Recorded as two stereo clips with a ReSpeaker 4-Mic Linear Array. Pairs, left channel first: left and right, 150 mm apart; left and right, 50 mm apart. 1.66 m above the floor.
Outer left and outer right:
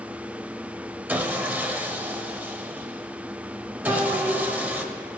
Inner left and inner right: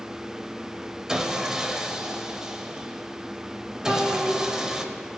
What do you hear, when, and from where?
1.1 s sawing: 15° right (ahead or behind), 0.7 m
3.9 s a child speaking: 30° right (ahead or behind), 2 m